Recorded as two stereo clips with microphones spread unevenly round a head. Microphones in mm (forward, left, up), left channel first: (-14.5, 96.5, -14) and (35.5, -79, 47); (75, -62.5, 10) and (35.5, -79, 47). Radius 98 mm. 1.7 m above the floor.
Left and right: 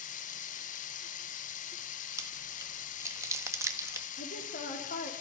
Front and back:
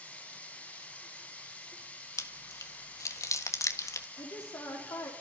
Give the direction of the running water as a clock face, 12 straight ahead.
7 o'clock.